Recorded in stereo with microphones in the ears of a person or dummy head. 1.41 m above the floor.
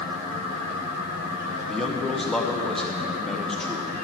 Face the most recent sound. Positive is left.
turn(degrees=5)  # may be behind; listen again after turning